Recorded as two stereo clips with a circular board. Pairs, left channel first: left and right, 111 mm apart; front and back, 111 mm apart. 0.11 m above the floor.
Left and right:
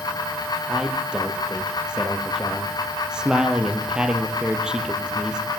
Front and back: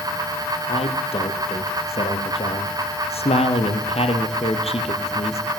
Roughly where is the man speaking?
Ahead.